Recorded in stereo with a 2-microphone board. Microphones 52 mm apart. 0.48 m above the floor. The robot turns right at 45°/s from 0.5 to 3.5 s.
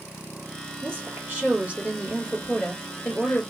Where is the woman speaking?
70° right, 2 m; by 3.4 s 45° left, 2 m.